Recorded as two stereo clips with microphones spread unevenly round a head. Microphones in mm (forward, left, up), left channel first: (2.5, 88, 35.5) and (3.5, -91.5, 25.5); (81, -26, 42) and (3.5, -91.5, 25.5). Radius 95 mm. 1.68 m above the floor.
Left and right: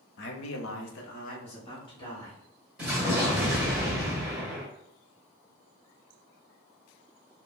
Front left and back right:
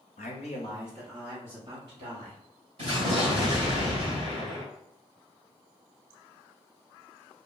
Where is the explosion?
175° right, 1.9 m.